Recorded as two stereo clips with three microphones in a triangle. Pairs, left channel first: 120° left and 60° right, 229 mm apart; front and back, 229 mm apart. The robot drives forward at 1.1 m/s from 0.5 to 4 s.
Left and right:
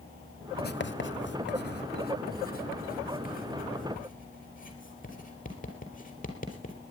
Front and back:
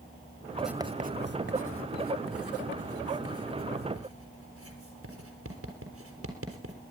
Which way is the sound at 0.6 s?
80° left.